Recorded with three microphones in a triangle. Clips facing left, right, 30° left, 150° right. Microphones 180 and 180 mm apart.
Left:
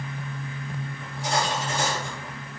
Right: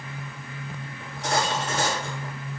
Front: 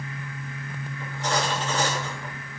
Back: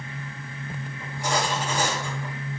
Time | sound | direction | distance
1.0 | cutlery clinking | 70° right | 7 m